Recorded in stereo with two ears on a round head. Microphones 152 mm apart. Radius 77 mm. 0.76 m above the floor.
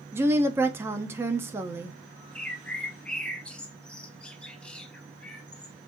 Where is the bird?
5° left (ahead or behind), 1.0 m.